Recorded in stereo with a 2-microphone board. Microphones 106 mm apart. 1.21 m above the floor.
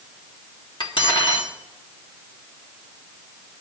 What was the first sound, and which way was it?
Cutlery clinking, 50° left (ahead or behind).